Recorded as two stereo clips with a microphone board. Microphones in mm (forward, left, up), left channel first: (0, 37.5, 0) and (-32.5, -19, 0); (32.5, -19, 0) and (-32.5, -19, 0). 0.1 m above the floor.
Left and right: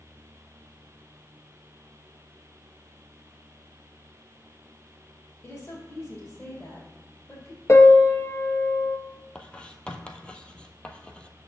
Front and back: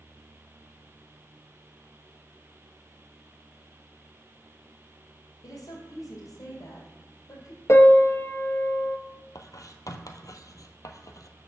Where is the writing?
15° right, 0.7 m.